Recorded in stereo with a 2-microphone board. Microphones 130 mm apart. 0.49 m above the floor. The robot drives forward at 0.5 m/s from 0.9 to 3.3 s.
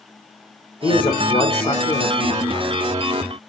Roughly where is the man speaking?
Left.